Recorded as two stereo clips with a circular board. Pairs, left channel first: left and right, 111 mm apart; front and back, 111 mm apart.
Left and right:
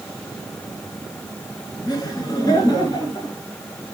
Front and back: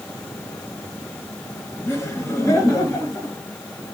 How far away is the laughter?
About 2 m.